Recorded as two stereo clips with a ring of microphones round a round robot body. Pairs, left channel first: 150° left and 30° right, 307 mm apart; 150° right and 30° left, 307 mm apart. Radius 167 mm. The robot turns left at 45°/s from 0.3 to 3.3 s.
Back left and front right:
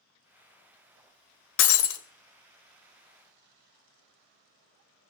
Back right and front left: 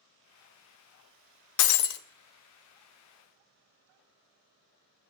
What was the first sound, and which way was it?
Breaking glass, 160° right.